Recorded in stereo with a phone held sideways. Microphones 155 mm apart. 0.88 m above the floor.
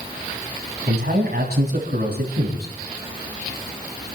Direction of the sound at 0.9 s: 85° right.